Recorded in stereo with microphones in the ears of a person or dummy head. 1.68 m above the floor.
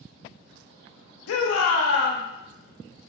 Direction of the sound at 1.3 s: 80° left.